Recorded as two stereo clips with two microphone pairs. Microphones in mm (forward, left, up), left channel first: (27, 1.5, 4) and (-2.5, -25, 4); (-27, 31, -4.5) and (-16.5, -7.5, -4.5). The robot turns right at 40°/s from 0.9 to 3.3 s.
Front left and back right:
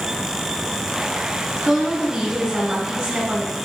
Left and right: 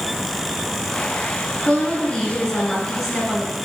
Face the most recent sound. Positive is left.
turn(degrees=-175)